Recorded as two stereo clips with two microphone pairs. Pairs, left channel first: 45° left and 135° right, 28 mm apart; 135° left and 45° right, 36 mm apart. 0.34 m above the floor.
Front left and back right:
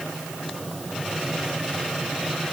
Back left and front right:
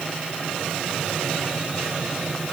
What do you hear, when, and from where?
Only background noise.